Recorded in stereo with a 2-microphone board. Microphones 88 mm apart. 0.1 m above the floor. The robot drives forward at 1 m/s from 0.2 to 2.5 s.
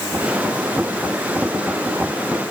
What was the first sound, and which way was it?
Only background noise.